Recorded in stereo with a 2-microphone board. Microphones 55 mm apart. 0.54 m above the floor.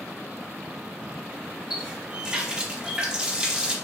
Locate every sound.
1.7 s a running tap: 15° right (ahead or behind), 0.6 m